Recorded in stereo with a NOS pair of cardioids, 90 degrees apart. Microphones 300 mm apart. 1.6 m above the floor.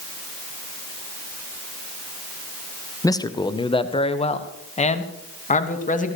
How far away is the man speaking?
About 1.3 m.